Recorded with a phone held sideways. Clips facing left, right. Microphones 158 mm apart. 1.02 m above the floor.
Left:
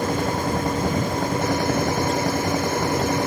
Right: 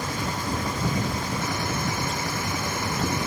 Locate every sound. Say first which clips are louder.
0.0 s a machine running: left 7 dB; 55° left (ahead or behind)